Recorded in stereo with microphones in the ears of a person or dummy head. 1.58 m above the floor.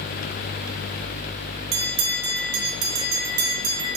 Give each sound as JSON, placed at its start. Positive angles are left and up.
{"t": 1.7, "sound": "a bell", "side_deg": -55, "distance_m": 0.6}